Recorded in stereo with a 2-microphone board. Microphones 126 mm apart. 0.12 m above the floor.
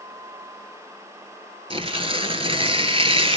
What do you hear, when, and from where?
1.7 s tearing paper: 45° right (ahead or behind), 1.5 m